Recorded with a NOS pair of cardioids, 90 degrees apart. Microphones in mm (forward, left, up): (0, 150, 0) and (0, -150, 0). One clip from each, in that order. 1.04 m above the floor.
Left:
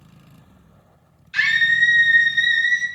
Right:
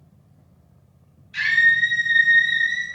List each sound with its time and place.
1.3 s a scream: 65° left, 5 m; by 2.9 s 55° left, 4 m